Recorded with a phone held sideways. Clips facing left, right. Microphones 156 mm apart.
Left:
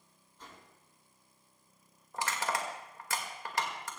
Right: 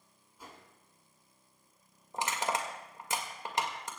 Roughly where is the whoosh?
Centre.